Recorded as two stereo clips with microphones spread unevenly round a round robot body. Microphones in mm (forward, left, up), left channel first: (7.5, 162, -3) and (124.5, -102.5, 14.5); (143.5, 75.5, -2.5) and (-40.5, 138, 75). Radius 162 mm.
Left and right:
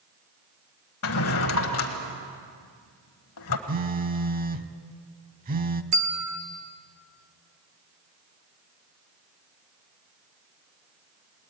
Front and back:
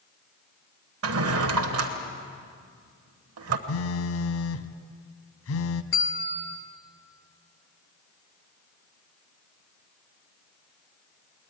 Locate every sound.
1.0 s a drawer: 165° left, 1.0 m
3.7 s a phone buzzing: 5° right, 0.9 m
5.9 s a bell: 90° right, 1.9 m